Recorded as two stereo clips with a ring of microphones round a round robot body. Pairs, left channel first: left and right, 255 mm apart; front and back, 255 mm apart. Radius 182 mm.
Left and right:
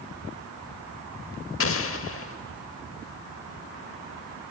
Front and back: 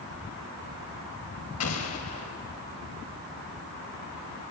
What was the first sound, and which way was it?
An explosion, 50° left.